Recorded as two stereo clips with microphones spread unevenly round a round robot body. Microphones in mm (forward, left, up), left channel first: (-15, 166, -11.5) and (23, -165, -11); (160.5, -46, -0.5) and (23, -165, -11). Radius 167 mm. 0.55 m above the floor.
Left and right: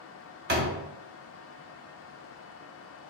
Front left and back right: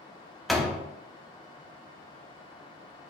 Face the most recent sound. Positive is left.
turn(degrees=-55)